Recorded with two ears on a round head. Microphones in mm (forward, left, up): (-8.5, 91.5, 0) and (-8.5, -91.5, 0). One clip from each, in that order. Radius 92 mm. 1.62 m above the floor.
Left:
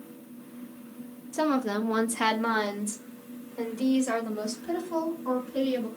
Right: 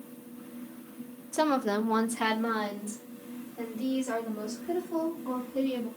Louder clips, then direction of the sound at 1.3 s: Even; 20° right (ahead or behind).